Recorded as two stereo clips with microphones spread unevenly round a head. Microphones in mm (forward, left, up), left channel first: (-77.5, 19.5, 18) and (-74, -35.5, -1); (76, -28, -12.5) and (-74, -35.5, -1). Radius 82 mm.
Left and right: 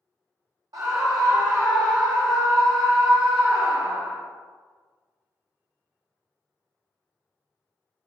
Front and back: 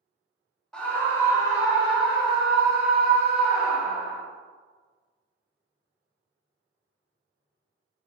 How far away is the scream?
About 1.1 m.